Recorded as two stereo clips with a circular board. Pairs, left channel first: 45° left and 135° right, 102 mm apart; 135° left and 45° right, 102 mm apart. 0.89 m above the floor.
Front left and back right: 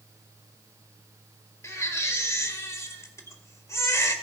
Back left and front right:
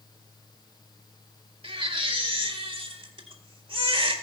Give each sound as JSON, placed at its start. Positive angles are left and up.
{"t": 1.6, "sound": "a baby crying", "azimuth_deg": -15, "distance_m": 1.7}